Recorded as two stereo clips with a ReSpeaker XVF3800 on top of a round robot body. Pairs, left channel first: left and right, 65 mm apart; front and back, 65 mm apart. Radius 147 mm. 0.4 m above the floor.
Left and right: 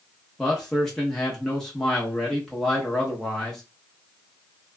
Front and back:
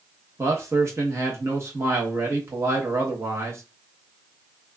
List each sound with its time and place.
0.4 s a man speaking: 175° left, 1.1 m